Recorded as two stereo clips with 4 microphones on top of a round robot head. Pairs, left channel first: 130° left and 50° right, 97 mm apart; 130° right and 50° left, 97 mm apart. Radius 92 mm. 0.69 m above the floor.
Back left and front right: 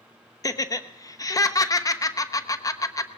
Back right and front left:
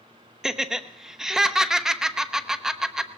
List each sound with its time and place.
0.4 s laughter: 130° left, 0.9 m